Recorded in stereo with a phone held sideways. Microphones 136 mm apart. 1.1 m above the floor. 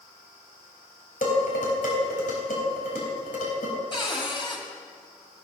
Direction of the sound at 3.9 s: 35° left (ahead or behind).